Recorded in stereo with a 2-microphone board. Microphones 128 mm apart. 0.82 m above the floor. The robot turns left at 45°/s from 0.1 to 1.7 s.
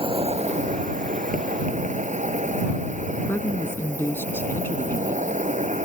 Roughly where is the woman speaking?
Centre.